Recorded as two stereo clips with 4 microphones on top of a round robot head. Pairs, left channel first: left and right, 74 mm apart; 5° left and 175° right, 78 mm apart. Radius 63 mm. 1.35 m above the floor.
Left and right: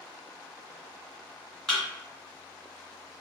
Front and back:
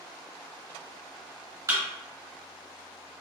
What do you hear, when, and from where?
1.7 s a thud: 170° left, 1.3 m